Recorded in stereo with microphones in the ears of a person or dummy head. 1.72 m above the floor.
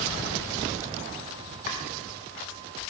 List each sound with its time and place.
1.7 s chopping: 50° left (ahead or behind), 1.4 m